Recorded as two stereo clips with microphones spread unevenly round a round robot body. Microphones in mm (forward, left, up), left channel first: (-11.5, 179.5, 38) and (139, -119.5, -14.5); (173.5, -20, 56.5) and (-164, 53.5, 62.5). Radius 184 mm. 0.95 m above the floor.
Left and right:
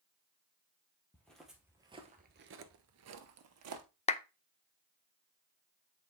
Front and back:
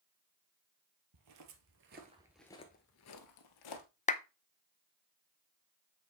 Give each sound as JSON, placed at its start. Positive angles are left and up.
{"t": 1.1, "sound": "footsteps", "azimuth_deg": -165, "distance_m": 1.6}
{"t": 4.1, "sound": "a clap", "azimuth_deg": 45, "distance_m": 0.6}